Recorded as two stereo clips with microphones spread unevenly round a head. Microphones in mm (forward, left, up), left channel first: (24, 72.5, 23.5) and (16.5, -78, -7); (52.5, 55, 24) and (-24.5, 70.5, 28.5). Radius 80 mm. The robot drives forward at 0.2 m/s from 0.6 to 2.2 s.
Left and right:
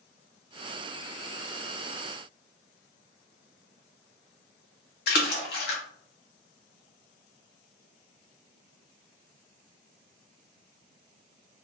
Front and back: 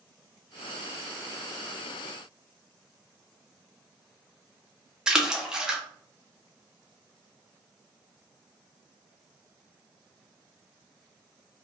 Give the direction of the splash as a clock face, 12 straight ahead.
9 o'clock.